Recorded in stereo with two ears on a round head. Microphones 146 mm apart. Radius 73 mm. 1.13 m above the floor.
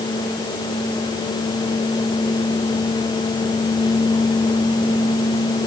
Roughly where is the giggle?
I don't hear a giggle.